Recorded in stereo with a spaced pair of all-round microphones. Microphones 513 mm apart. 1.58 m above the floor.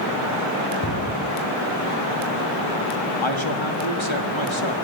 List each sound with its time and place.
0.8 s a cupboard door: 30° left (ahead or behind), 6 m
3.2 s a man speaking: 60° left (ahead or behind), 4 m